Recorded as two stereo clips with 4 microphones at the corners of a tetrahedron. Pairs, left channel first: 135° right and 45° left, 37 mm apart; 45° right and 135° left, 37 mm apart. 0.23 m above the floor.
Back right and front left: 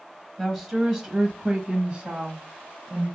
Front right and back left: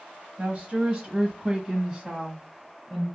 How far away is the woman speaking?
About 1.3 m.